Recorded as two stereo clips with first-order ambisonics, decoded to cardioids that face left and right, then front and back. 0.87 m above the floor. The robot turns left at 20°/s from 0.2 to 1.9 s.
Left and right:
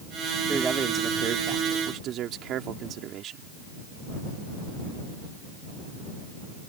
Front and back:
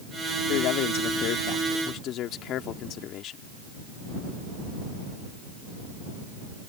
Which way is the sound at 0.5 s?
15° right.